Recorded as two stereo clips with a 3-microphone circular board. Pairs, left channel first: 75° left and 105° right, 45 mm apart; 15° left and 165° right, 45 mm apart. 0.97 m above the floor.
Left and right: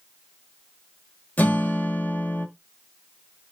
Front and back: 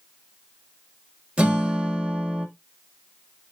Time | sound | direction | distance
1.4 | a guitar | 130° left | 1.8 m